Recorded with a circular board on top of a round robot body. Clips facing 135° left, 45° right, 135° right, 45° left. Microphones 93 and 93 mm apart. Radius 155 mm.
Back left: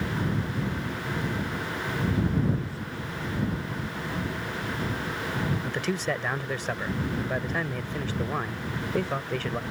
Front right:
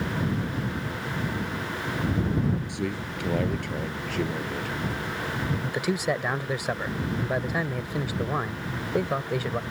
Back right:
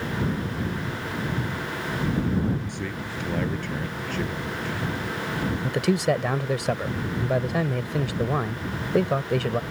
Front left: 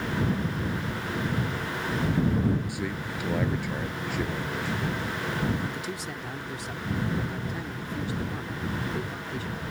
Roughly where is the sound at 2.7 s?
Ahead right.